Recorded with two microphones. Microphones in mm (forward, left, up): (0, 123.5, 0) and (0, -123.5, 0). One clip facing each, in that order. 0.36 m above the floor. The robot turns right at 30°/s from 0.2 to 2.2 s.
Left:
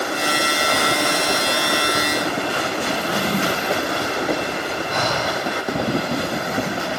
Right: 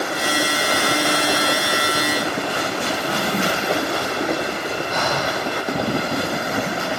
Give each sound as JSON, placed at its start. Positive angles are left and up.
{"t": 2.9, "sound": "a drawer", "side_deg": 45, "distance_m": 0.9}
{"t": 4.9, "sound": "breathing", "side_deg": 35, "distance_m": 3.5}